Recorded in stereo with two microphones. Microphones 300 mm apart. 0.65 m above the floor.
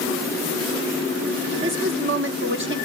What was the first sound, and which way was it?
A woman speaking, 40° right (ahead or behind).